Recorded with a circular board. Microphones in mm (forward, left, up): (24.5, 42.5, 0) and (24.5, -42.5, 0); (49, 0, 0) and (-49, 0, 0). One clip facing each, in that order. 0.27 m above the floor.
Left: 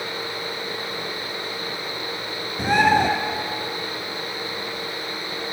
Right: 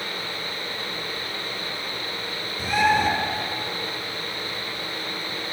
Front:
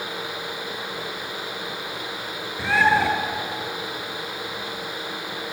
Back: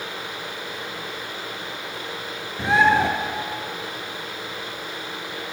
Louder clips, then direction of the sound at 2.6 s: Left 3 dB, back 2 dB; 110° left.